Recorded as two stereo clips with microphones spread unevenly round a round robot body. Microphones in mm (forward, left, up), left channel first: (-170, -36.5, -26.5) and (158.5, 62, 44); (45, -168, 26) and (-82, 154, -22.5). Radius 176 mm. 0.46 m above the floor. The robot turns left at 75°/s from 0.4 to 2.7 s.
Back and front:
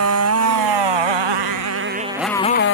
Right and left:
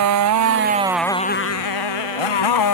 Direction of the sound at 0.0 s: 65° left.